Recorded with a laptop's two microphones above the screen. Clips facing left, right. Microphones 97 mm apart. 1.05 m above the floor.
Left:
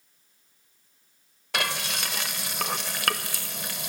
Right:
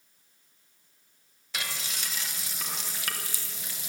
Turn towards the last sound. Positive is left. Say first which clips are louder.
# left 8 dB
turn(degrees=65)  # may be behind; listen again after turning